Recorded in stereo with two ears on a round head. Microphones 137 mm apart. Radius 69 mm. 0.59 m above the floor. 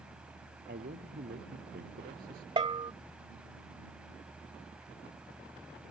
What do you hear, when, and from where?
0.7 s a man speaking: 60° right (ahead or behind)
2.6 s a bell: 35° right (ahead or behind)